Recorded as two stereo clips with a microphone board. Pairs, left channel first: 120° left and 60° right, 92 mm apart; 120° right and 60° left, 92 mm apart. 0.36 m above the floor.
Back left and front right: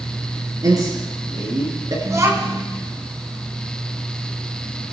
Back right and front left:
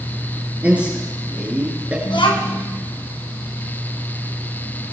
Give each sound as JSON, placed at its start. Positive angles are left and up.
{"t": 0.6, "sound": "a man speaking", "azimuth_deg": -15, "distance_m": 5.5}
{"t": 2.0, "sound": "a child speaking", "azimuth_deg": -115, "distance_m": 3.0}